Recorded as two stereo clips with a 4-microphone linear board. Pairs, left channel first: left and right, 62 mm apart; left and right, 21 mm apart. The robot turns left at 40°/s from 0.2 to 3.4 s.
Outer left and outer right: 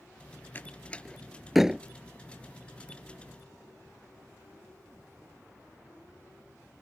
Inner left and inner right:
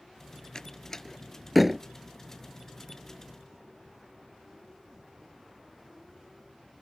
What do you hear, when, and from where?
0.6 s a door slam: 30° left (ahead or behind); by 1.8 s 15° right (ahead or behind)